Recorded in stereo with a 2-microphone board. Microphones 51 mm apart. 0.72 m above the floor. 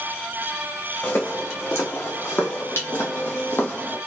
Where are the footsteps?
55° left (ahead or behind), 1.9 m; by 4.0 s 40° left (ahead or behind), 1.3 m.